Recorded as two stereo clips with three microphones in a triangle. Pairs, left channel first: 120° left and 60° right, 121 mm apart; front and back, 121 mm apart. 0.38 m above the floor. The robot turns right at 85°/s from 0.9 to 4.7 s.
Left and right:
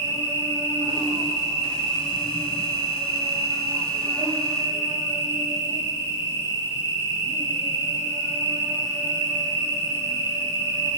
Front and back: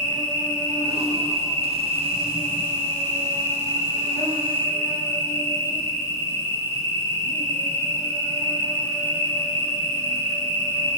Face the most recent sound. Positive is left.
turn(degrees=-30)